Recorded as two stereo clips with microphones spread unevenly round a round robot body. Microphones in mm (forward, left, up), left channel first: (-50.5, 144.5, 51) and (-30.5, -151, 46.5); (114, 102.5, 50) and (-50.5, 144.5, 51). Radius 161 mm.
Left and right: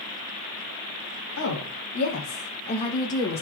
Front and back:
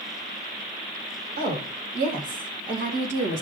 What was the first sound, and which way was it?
A woman speaking, 135° left.